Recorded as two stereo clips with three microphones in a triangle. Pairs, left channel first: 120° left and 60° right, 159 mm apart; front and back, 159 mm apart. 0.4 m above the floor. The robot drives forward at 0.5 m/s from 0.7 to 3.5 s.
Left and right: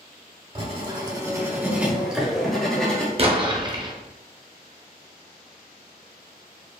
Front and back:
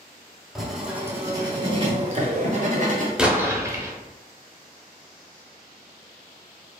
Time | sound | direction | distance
0.6 | writing | 90° right | 0.8 m
3.2 | an explosion | 95° right | 0.6 m